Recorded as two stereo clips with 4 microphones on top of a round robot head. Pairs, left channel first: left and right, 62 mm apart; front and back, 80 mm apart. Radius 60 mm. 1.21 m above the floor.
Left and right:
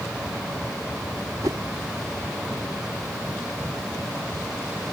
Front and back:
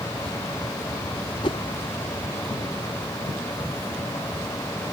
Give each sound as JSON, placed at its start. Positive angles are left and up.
{"t": 1.4, "sound": "a whoosh", "azimuth_deg": -40}